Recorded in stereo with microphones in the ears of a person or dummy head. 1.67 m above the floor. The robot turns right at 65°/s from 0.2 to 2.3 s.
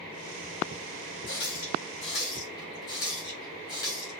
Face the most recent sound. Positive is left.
turn(degrees=20)  # may be behind; listen again after turning